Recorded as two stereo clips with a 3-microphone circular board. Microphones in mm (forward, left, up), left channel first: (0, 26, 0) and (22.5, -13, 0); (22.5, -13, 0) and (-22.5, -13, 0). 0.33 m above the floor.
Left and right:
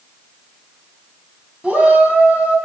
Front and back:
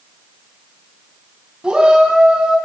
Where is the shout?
120° right, 3 m.